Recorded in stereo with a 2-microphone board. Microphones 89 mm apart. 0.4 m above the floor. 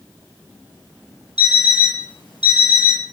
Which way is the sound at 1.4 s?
65° left (ahead or behind).